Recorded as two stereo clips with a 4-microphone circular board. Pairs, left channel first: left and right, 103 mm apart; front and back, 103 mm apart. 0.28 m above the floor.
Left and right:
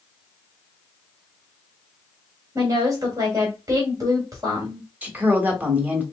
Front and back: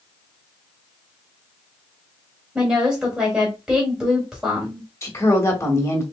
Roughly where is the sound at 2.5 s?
Right.